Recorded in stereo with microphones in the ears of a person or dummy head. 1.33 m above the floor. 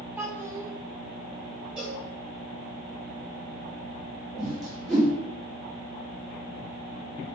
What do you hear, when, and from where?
0.2 s a child speaking: 5° right (ahead or behind), 0.8 m
1.8 s a cowbell: 5° right (ahead or behind), 1.0 m
4.4 s a whoosh: centre (ahead or behind), 1.0 m